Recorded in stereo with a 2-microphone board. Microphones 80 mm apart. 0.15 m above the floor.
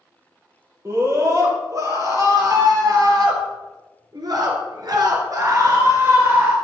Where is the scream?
40° right (ahead or behind), 4 m; by 6.5 s 30° right (ahead or behind), 2 m.